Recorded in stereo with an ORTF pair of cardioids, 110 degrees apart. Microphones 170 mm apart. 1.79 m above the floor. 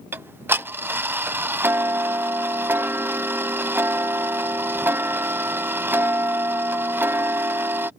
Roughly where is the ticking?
Ahead.